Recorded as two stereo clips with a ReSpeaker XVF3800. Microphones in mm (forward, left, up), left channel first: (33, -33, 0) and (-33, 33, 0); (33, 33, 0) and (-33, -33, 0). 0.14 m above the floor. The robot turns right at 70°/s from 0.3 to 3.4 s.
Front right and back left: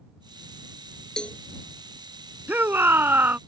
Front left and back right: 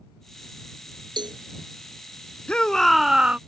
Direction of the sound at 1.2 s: 125° right.